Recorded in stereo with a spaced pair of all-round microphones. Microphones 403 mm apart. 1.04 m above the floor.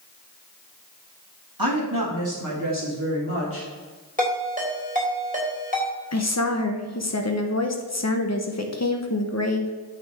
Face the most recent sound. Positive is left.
turn(degrees=40)  # may be behind; listen again after turning